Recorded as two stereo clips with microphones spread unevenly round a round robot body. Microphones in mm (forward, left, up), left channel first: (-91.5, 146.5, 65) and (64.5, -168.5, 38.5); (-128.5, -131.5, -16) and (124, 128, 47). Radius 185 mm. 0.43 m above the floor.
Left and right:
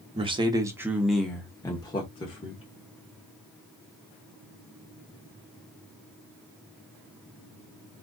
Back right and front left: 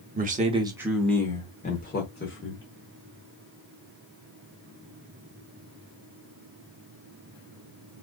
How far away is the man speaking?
About 0.9 m.